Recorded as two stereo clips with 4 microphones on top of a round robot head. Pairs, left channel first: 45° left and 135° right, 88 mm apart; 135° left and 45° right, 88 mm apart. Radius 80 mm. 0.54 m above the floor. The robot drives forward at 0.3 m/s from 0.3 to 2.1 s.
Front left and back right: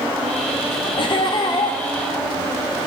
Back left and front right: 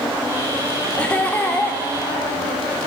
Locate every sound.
1.0 s laughter: 60° left, 1.2 m; by 1.8 s 70° left, 1.1 m